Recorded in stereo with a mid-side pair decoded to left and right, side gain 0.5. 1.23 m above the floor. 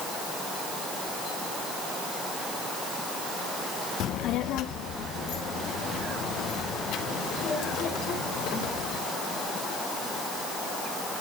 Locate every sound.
4.0 s a child speaking: 70° left, 0.6 m; by 9.0 s 75° left, 4.5 m